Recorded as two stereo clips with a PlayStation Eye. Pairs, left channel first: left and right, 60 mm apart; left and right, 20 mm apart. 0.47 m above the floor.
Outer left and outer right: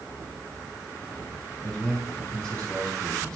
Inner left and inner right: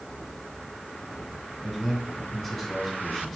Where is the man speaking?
10° left (ahead or behind), 4.5 m.